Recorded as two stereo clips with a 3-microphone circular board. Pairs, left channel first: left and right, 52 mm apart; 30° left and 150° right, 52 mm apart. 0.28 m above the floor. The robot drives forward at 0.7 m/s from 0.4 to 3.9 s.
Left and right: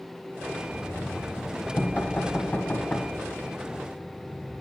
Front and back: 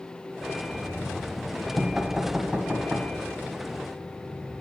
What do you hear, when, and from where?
0.7 s knocking: 70° left, 1.3 m; by 4.6 s 160° left, 2.5 m